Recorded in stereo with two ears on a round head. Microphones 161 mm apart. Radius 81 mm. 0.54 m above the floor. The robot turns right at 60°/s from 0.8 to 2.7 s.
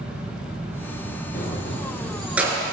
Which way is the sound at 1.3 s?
55° left (ahead or behind).